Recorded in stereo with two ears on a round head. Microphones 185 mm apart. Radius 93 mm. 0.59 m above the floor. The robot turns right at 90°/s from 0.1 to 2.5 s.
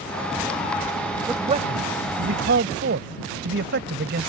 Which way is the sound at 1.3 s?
10° right (ahead or behind).